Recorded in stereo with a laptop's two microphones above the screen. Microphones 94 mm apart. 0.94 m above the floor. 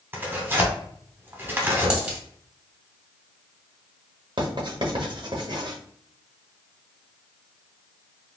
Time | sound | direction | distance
0.1 | tearing paper | 20° right (ahead or behind) | 0.7 m
1.9 | a dropped coin | 15° right (ahead or behind) | 1.7 m
4.4 | writing | 55° right (ahead or behind) | 0.9 m